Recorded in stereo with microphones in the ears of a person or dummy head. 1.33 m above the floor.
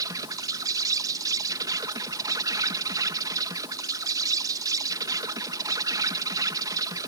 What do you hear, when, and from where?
0.0 s an insect: 20° right (ahead or behind)